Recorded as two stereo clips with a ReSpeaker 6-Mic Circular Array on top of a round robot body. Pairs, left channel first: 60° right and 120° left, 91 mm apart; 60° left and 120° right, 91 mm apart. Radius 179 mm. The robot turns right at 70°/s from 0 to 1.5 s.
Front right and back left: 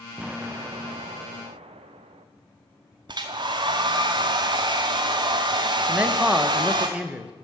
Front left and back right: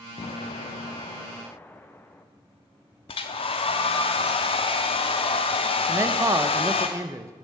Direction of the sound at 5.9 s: 165° right.